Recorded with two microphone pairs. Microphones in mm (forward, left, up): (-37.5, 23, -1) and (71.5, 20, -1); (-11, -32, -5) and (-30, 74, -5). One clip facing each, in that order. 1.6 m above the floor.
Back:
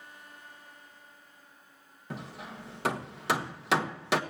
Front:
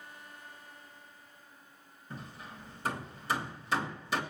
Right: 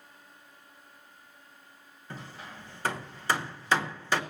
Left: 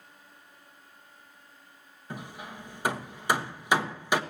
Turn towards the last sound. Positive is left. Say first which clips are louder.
# back 5 dB, left 3 dB
turn(degrees=175)